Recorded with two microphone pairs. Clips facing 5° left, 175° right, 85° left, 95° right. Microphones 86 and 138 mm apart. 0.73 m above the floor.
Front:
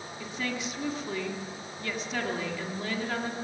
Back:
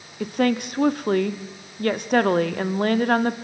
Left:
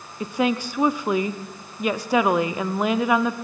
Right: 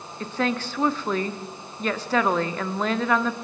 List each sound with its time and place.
0.2 s a woman speaking: 165° left, 1.3 m